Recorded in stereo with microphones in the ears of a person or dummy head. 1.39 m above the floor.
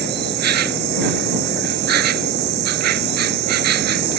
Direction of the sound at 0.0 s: 55° right (ahead or behind).